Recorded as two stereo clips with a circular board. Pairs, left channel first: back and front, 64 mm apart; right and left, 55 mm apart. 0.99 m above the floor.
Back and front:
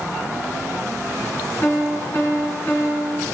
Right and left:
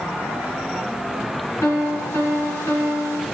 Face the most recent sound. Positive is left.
turn(degrees=-130)